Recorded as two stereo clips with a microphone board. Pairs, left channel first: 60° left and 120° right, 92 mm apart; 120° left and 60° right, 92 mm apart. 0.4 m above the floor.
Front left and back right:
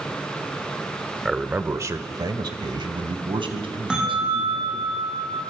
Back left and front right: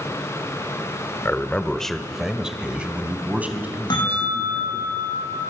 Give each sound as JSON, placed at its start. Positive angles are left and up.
{"t": 1.2, "sound": "a man speaking", "azimuth_deg": 155, "distance_m": 1.1}
{"t": 3.9, "sound": "a bell", "azimuth_deg": 160, "distance_m": 7.0}